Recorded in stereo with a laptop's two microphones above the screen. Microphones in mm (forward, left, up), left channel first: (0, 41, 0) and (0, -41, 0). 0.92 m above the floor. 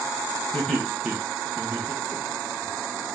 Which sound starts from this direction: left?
Laughter, at 0.5 s.